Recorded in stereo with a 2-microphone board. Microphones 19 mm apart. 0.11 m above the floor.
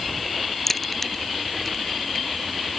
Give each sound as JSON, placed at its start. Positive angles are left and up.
{"t": 0.7, "sound": "a crack", "side_deg": 15}